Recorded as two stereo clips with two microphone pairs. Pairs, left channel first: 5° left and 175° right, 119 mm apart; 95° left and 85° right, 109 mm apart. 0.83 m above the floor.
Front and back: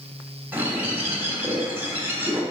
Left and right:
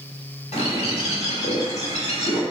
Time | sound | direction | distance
0.5 | a bird | 115° left | 1.4 m